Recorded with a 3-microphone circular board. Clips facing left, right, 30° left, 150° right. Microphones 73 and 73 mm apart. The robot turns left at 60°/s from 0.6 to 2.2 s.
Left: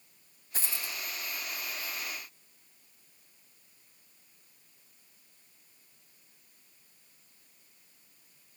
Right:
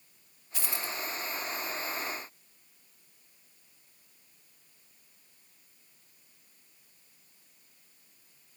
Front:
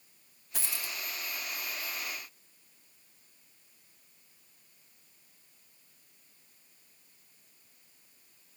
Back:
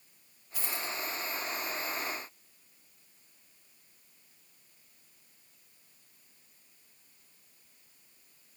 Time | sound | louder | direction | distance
0.5 | a dropped coin | right 3 dB, back 3 dB | 40° left | 0.6 m